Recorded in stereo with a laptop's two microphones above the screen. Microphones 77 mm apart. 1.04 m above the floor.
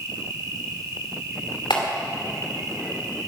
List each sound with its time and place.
0.0 s an insect: 45° right (ahead or behind), 1.6 m
1.7 s a clap: 85° left, 2.5 m